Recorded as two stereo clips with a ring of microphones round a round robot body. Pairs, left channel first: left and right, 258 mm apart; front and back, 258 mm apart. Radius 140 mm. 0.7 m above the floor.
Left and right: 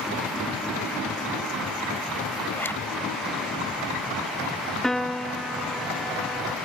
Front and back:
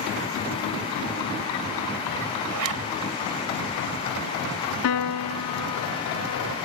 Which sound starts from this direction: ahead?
A piano, at 4.8 s.